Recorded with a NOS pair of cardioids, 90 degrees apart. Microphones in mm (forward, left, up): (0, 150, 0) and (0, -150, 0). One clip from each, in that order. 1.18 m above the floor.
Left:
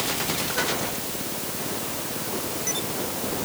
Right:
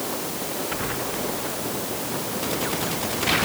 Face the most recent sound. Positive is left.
No sound to turn to.